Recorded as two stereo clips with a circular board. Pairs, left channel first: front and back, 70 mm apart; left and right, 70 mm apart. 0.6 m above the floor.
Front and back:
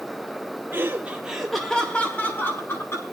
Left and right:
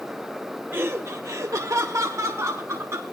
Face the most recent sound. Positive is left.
turn(degrees=-45)